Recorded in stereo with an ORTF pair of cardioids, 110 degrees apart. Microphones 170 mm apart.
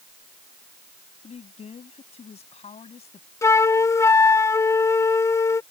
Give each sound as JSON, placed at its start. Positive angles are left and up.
{"t": 1.2, "sound": "a woman speaking", "azimuth_deg": 40}
{"t": 3.4, "sound": "a flute", "azimuth_deg": 15}